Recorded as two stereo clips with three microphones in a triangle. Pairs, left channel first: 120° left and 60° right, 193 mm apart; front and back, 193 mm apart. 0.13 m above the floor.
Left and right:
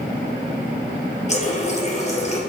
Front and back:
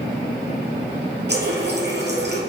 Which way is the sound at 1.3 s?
170° left.